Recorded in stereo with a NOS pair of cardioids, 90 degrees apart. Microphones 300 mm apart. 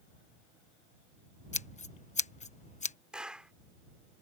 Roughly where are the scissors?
Ahead left.